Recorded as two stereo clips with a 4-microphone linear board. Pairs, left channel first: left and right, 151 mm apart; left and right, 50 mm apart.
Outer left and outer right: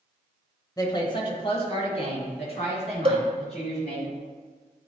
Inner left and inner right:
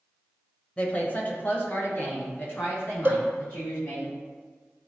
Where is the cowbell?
40° right (ahead or behind), 0.6 m.